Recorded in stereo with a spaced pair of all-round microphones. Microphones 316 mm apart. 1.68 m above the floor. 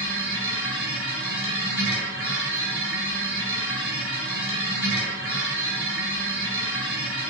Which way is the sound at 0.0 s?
40° right (ahead or behind).